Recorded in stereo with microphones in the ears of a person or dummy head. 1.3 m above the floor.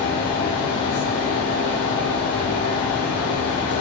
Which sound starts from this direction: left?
A fan, at 0.0 s.